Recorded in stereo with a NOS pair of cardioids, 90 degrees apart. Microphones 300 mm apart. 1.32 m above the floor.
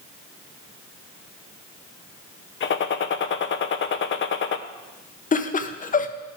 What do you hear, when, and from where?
2.6 s a gunshot: 40° left, 0.7 m
5.3 s laughter: 30° left, 0.9 m